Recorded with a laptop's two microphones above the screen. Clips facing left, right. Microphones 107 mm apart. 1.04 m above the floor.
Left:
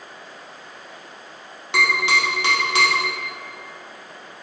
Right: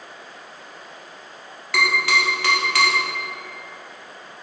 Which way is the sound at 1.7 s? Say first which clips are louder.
Even; 25° left (ahead or behind).